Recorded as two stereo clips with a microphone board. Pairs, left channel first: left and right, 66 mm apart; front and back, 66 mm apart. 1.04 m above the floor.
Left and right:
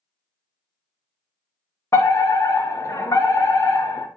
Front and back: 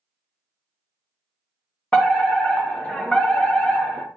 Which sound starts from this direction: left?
A fire alarm, at 1.9 s.